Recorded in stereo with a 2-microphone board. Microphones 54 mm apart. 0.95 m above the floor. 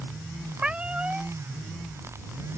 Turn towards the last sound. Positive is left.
turn(degrees=-20)  # may be behind; listen again after turning